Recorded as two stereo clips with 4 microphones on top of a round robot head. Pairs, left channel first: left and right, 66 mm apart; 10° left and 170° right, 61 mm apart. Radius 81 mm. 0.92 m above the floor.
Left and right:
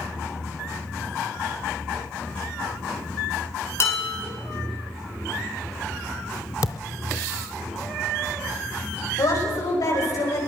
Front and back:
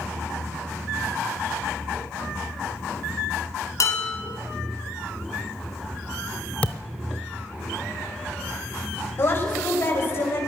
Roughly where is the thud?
Left.